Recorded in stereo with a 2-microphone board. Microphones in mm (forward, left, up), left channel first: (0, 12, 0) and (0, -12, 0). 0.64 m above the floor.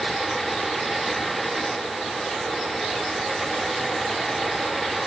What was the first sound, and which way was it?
Only background noise.